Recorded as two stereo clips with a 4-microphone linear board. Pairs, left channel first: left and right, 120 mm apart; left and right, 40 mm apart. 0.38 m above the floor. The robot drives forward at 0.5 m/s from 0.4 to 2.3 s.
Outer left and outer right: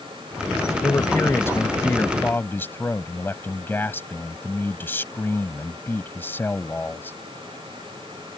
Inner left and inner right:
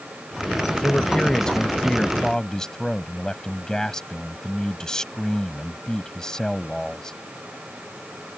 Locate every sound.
0.8 s a man speaking: 25° left (ahead or behind); by 7.2 s 20° left (ahead or behind)